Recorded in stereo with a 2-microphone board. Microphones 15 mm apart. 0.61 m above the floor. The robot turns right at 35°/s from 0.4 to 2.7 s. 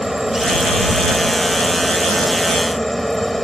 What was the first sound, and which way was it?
A helicopter, 50° right.